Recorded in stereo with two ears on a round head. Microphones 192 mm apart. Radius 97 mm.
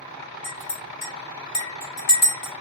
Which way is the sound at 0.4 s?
70° left (ahead or behind).